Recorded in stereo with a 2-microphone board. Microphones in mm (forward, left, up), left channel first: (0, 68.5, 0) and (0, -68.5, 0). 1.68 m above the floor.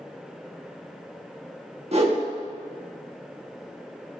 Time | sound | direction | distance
1.9 | a whoosh | 50° right (ahead or behind) | 1.5 m